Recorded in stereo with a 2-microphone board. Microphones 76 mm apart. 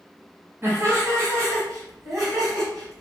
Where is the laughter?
35° right (ahead or behind), 1.5 m; by 3.0 s 55° right (ahead or behind), 2.5 m.